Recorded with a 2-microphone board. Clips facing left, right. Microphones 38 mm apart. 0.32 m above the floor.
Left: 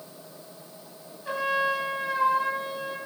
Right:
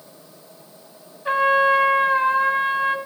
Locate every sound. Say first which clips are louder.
1.2 s a trumpet: right 9 dB; 45° right (ahead or behind), 2 m